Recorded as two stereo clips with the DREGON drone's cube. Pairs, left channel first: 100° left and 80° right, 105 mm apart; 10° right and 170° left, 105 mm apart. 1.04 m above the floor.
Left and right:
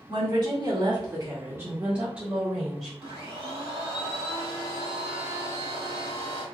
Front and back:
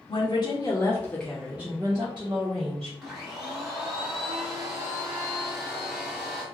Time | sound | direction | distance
0.1 | a woman speaking | 40° right | 1.3 m
3.0 | a blender | 110° right | 1.4 m